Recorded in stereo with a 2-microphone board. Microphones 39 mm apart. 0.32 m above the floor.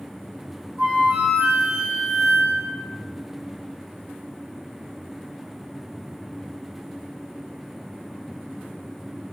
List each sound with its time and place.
0.8 s a flute: 15° right (ahead or behind), 1.0 m